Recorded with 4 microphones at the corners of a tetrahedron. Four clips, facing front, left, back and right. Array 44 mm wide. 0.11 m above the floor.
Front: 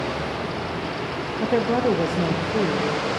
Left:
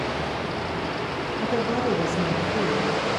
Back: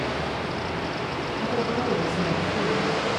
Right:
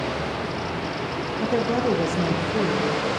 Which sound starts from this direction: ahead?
A woman speaking, at 1.4 s.